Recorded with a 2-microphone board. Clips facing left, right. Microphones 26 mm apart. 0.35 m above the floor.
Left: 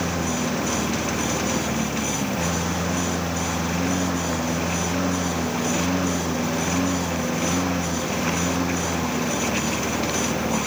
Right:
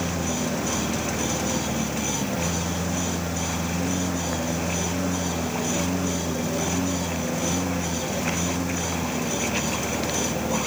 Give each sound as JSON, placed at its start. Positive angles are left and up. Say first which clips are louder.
{"t": 0.0, "sound": "a lawn mower", "louder": "left 2 dB", "side_deg": 15}